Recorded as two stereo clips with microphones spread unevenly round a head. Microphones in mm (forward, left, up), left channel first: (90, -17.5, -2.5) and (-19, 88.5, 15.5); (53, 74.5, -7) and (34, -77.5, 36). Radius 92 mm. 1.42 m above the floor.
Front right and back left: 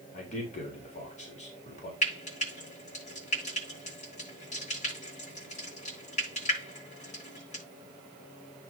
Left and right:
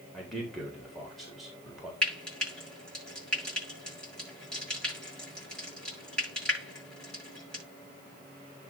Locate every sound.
0.1 s a man speaking: 5° right, 4 m
2.0 s frying: 5° right, 9 m